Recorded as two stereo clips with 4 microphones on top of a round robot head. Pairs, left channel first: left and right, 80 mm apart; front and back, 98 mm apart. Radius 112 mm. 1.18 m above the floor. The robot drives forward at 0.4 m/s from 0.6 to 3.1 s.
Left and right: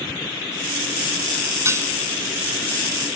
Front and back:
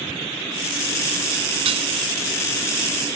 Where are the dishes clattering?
145° right.